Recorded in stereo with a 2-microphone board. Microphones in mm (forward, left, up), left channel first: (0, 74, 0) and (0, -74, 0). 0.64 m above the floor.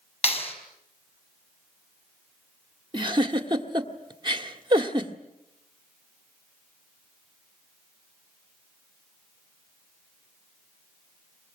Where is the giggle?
30° right (ahead or behind), 1.6 m.